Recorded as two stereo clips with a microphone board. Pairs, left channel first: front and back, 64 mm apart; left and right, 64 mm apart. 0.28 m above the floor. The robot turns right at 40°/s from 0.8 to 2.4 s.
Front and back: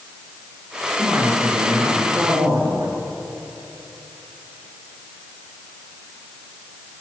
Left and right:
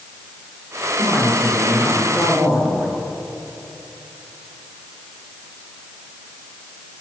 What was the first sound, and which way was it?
A man speaking, 130° left.